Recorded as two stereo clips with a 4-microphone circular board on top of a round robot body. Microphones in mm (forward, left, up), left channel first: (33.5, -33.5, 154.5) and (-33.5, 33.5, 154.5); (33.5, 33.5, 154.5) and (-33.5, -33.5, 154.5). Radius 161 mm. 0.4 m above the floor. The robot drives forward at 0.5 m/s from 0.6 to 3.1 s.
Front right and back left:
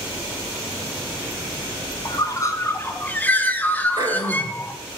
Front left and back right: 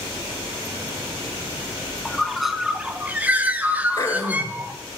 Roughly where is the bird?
Ahead right.